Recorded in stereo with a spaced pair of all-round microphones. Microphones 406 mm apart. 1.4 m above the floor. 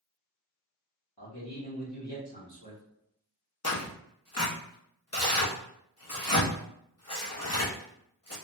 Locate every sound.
1.2 s a man speaking: 65° left (ahead or behind), 1.1 m
3.6 s tearing paper: 35° left (ahead or behind), 0.7 m